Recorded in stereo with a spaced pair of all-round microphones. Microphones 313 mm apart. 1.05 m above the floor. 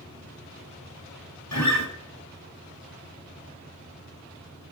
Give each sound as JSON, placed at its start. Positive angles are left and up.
{"t": 1.5, "sound": "a guitar", "side_deg": 65, "distance_m": 3.5}